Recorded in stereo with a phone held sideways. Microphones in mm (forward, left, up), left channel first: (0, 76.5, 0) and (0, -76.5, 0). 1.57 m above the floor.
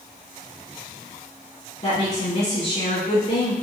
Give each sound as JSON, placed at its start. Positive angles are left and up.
{"t": 1.8, "sound": "a woman speaking", "side_deg": 40, "distance_m": 1.5}